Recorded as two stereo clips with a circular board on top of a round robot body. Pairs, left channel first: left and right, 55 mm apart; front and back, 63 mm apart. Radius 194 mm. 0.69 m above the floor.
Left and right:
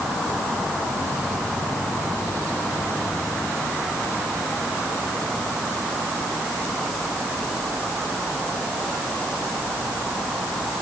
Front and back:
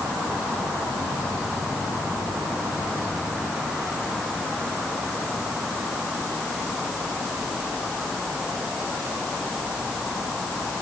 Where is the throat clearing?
I don't hear throat clearing.